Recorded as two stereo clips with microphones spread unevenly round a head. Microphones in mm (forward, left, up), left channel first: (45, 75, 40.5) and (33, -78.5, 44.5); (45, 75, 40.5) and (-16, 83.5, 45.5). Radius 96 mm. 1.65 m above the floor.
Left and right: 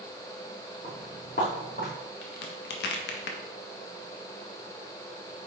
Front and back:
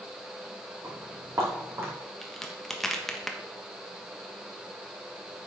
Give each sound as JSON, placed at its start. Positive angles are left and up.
{"t": 0.8, "sound": "footsteps", "azimuth_deg": 135, "distance_m": 4.5}
{"t": 2.2, "sound": "a crack", "azimuth_deg": 80, "distance_m": 1.4}